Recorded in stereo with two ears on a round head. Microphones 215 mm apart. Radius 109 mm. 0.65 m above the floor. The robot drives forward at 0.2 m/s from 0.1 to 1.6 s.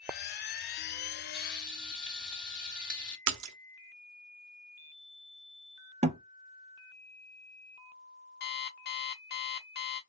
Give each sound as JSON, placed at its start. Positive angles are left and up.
{"t": 1.3, "sound": "frying", "side_deg": 5, "distance_m": 1.3}
{"t": 3.3, "sound": "a splash", "side_deg": -75, "distance_m": 0.5}
{"t": 6.0, "sound": "a thud", "side_deg": -25, "distance_m": 0.7}
{"t": 8.4, "sound": "an alarm clock", "side_deg": 45, "distance_m": 0.8}